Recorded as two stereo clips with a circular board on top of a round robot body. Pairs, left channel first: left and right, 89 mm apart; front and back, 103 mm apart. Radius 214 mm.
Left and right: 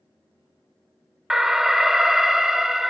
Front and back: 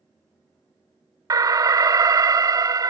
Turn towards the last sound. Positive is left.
turn(degrees=-170)